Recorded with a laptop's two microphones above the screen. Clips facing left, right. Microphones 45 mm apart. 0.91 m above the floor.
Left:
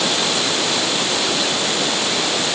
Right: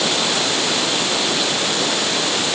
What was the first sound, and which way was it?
Only background noise.